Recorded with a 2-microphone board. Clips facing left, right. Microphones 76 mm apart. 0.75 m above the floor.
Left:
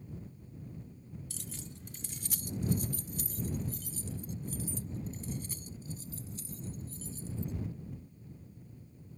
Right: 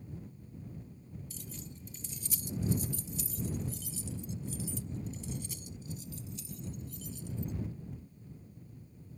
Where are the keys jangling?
70° left (ahead or behind); by 7.5 s 40° left (ahead or behind).